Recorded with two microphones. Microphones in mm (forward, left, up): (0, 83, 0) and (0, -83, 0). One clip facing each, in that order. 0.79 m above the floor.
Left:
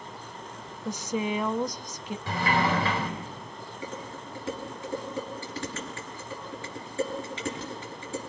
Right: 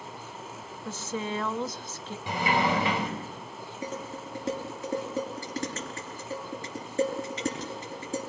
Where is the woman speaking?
15° left (ahead or behind), 0.8 m.